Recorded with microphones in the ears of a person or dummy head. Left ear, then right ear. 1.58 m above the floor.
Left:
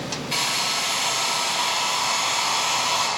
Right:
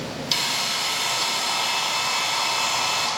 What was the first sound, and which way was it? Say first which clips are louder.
A hair dryer: even; 5° right (ahead or behind).